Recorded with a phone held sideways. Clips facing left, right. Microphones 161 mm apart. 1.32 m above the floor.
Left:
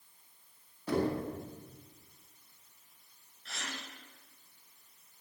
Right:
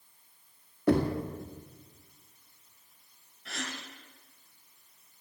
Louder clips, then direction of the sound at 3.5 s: Right 5 dB; 65° right (ahead or behind).